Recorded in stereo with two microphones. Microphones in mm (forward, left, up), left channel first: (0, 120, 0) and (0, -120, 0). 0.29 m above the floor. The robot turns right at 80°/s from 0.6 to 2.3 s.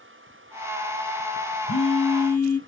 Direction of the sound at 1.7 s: 90° left.